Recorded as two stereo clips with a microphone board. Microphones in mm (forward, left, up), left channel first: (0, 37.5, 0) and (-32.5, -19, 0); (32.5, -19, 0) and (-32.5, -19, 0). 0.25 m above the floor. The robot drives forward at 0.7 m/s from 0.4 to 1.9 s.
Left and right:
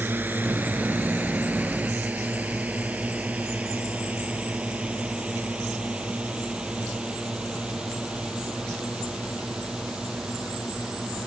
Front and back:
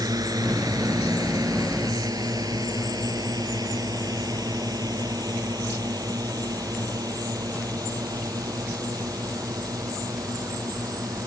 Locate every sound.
0.0 s a drone: straight behind; by 11.3 s 160° left